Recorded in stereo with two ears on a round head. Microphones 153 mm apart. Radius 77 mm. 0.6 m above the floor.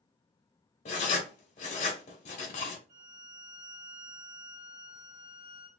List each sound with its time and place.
0.8 s writing: 40° left (ahead or behind), 0.8 m
2.9 s a violin: 40° right (ahead or behind), 1.4 m